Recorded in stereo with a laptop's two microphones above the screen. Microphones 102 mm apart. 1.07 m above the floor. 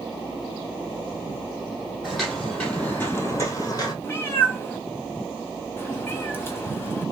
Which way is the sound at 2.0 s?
Centre (ahead or behind).